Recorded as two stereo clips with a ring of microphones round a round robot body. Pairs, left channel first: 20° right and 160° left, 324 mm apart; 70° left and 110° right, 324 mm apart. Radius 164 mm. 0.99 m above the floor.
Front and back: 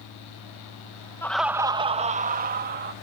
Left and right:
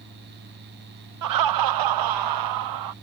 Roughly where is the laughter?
Right.